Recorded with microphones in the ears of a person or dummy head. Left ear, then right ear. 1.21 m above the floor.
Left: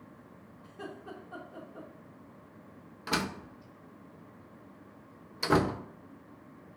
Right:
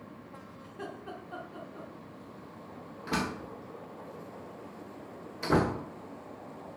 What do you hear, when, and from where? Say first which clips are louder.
0.6 s laughter: right 1 dB; 5° right (ahead or behind), 2.5 m
3.1 s a door slam: left 1 dB; 30° left (ahead or behind), 0.9 m